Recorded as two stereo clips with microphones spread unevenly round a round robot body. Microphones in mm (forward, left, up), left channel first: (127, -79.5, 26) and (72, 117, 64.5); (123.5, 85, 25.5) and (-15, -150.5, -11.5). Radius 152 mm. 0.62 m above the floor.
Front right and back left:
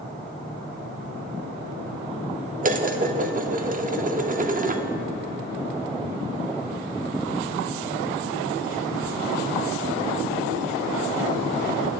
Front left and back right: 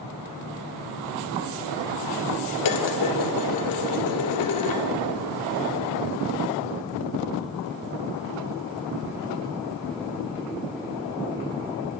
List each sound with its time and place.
2.6 s dishes clattering: 50° left, 0.8 m